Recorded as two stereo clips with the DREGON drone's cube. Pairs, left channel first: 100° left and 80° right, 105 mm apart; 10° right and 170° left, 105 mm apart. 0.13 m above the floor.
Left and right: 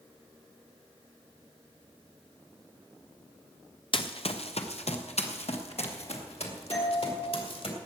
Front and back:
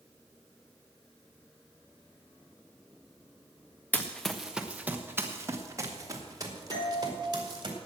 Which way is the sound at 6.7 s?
45° left.